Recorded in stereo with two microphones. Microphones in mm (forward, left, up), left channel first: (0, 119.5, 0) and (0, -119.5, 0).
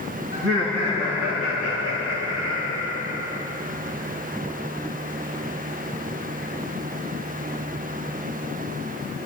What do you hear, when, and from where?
0.3 s laughter: 70° right (ahead or behind), 2.5 m; by 3.4 s 80° right, 4.5 m